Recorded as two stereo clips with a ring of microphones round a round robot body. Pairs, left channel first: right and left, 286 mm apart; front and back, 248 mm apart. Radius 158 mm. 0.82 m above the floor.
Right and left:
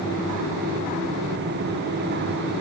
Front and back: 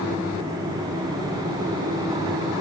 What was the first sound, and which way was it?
Only background noise.